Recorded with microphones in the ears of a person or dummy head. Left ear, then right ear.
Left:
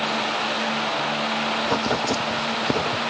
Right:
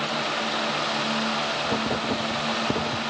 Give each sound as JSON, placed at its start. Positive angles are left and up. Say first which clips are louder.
{"t": 1.6, "sound": "writing", "louder": "left 3 dB", "side_deg": 85}